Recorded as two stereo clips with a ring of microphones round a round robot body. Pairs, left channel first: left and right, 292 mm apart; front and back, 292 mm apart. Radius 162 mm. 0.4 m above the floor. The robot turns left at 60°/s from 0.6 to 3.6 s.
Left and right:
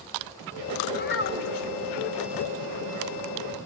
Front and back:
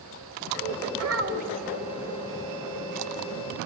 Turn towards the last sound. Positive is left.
turn(degrees=-10)